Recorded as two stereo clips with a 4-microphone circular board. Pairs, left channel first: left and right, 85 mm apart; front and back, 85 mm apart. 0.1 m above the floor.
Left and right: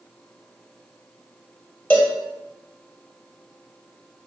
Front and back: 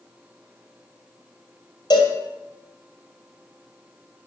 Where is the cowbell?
25° left, 2.5 m.